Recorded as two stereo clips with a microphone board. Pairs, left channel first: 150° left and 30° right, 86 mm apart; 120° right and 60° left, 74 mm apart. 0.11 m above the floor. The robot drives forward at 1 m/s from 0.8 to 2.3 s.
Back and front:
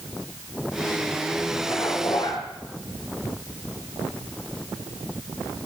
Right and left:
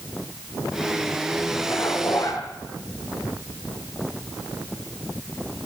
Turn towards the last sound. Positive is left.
turn(degrees=-170)